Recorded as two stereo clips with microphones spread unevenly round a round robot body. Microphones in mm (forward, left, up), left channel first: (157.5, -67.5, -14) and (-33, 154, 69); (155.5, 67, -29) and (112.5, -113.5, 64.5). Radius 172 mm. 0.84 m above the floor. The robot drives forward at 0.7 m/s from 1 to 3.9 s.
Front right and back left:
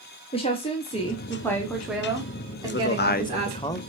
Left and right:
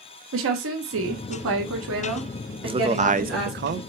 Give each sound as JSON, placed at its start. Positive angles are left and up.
{"t": 0.3, "sound": "a woman speaking", "azimuth_deg": -110, "distance_m": 1.2}
{"t": 2.6, "sound": "a man speaking", "azimuth_deg": -25, "distance_m": 1.0}